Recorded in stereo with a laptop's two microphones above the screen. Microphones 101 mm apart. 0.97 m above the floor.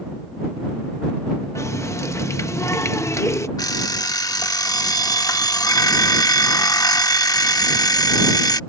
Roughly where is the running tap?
Left.